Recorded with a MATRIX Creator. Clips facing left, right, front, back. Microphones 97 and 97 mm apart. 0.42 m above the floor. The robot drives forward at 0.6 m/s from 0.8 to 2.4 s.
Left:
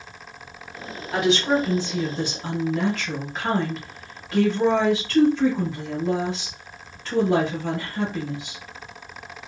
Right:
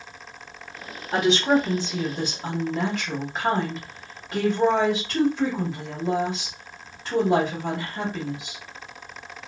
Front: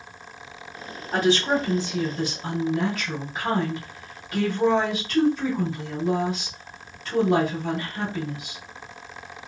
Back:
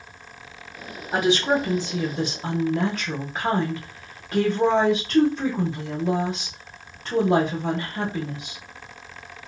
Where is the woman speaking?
115° right, 0.8 m; by 8.6 s 155° right, 1.3 m.